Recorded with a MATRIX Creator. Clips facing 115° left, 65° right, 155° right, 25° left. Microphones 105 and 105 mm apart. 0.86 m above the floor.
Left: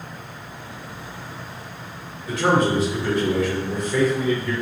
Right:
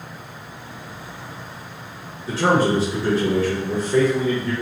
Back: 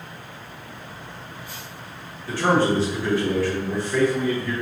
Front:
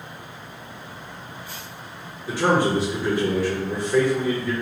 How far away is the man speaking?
About 0.7 m.